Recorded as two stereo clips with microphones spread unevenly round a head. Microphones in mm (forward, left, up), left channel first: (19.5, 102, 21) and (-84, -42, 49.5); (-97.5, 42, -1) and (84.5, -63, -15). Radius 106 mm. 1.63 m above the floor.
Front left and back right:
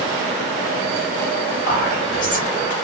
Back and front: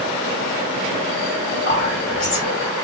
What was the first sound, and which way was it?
Whispering, 100° left.